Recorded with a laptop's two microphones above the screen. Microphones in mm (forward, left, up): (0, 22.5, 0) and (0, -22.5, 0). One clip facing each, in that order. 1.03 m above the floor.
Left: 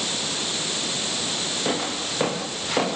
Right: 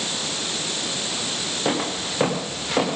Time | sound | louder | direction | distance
1.6 | footsteps | right 3 dB | 15° right (ahead or behind) | 5 m